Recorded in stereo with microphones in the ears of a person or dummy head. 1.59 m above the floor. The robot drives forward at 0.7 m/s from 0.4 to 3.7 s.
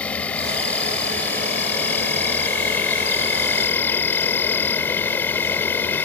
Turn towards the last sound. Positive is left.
turn(degrees=15)  # may be behind; listen again after turning